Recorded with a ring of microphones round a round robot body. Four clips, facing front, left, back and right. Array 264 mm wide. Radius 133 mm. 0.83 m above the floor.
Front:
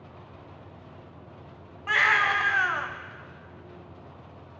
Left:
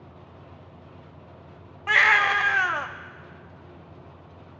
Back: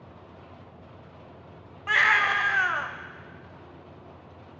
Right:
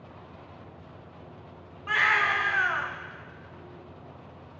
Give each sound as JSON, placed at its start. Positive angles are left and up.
{"t": 1.9, "sound": "a baby crying", "azimuth_deg": 95, "distance_m": 0.8}